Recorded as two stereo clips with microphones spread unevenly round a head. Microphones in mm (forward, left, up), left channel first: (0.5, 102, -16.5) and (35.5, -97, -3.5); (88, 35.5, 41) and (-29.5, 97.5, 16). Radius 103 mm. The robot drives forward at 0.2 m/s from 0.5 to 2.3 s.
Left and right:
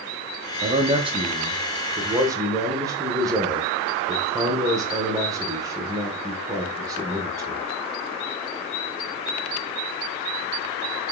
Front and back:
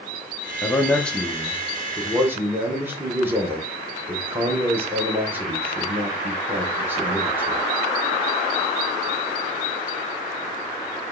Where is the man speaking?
105° right, 0.5 m; by 7.6 s 150° right, 0.7 m.